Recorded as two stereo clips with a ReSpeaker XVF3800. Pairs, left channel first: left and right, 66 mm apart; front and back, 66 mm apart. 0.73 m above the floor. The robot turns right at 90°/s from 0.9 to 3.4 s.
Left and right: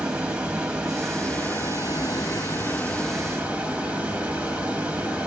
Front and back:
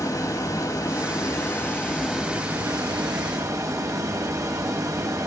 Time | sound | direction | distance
0.0 | running water | 15° right | 1.0 m